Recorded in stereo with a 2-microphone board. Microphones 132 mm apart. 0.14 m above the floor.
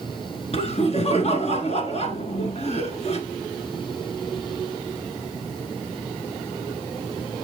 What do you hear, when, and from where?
0.5 s laughter: 50° left (ahead or behind), 1.6 m